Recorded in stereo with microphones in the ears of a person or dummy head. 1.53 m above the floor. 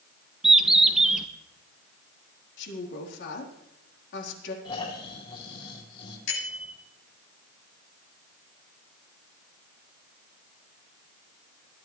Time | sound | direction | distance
0.4 | a bird | 10° right (ahead or behind) | 0.8 m
2.6 | a woman speaking | 65° left (ahead or behind) | 4 m
4.7 | snoring | 30° left (ahead or behind) | 5.5 m
6.3 | a bicycle bell | 75° left (ahead or behind) | 9 m